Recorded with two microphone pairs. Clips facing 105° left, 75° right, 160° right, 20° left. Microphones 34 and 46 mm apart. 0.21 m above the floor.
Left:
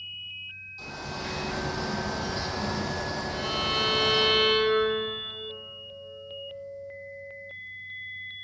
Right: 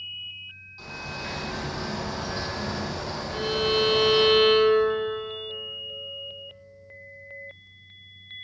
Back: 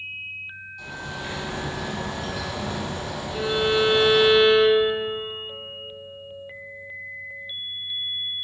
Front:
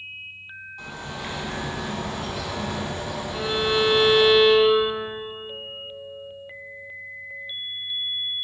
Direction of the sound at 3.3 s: 25° right.